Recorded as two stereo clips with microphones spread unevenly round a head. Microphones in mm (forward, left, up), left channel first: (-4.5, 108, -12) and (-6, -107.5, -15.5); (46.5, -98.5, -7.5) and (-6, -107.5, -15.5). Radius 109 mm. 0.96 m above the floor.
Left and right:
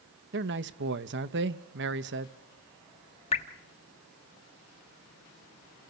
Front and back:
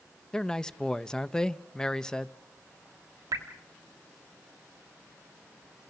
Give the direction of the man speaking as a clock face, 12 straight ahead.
2 o'clock.